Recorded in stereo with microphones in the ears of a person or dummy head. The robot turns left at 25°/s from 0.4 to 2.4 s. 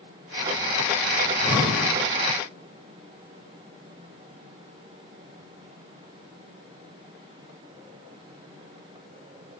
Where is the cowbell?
No cowbell in this recording.